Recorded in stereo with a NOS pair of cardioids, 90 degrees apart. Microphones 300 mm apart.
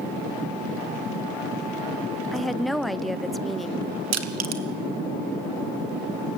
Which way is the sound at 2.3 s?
Straight ahead.